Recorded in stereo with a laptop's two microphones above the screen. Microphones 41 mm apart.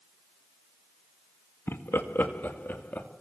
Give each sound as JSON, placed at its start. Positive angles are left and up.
{"t": 1.7, "sound": "laughter", "side_deg": 65, "distance_m": 1.9}